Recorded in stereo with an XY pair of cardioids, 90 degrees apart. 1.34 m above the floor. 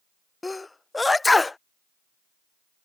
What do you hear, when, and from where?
0.4 s a sneeze: 20° left